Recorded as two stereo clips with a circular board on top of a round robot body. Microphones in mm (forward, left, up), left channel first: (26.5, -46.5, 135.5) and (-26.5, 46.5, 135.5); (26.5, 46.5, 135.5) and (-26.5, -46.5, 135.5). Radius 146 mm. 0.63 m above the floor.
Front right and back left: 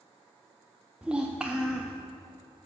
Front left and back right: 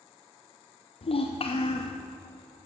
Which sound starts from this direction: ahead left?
A child speaking, at 1.0 s.